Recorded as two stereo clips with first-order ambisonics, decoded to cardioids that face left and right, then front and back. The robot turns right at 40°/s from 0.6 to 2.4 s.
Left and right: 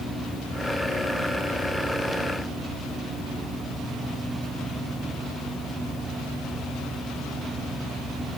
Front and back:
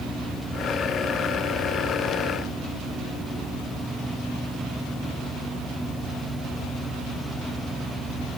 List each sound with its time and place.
Only background noise.